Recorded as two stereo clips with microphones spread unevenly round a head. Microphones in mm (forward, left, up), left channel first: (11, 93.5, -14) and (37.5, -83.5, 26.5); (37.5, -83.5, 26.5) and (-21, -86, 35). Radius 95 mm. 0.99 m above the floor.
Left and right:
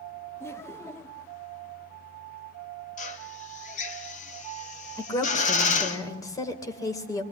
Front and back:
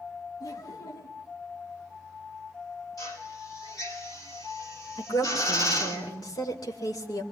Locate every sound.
0.4 s laughter: 25° left, 1.7 m
3.0 s a drill: 50° left, 4.5 m
5.0 s a woman speaking: 25° left, 4 m